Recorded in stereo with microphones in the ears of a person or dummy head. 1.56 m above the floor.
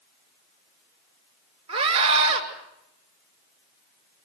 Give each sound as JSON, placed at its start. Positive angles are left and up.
{"t": 1.7, "sound": "a scream", "side_deg": -35, "distance_m": 6.0}